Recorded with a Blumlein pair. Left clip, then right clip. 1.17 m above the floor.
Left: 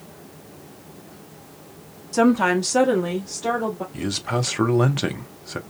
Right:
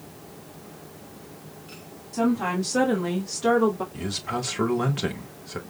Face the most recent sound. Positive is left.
turn(degrees=15)